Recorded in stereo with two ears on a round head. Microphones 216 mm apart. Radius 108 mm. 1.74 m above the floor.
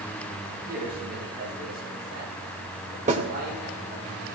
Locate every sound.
0.7 s a man speaking: 45° right (ahead or behind), 8.5 m
3.1 s a snare drum: 30° right (ahead or behind), 2.5 m